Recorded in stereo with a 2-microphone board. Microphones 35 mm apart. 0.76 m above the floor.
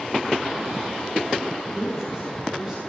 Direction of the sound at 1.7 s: 10° right (ahead or behind).